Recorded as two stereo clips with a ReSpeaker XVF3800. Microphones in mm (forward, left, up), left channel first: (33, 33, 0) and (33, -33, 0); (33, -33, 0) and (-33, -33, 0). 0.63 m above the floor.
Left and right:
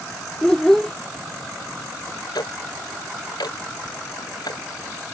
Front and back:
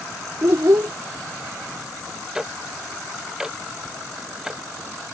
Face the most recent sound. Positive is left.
turn(degrees=95)